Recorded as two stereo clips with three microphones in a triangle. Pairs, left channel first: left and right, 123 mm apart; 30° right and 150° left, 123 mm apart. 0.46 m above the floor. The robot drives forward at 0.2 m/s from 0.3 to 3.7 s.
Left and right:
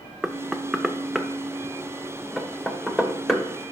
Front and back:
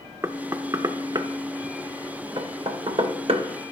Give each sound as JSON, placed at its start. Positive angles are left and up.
{"t": 0.2, "sound": "knocking", "azimuth_deg": -175, "distance_m": 0.5}